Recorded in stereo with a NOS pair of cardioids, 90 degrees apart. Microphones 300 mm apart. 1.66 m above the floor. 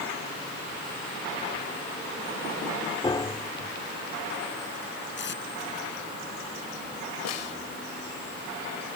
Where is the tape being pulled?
40° left.